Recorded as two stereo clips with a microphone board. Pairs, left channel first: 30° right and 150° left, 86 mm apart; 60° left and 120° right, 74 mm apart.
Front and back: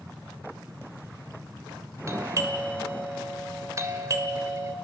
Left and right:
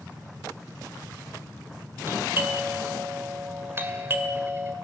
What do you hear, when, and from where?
2.1 s a doorbell: 170° right, 2.0 m